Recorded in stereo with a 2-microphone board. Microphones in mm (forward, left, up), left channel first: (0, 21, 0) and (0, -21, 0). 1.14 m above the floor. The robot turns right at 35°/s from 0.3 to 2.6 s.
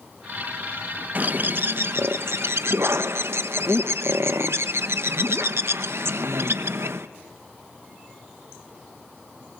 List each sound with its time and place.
1.1 s a bird: 140° right, 0.9 m; by 7.1 s 90° right, 0.9 m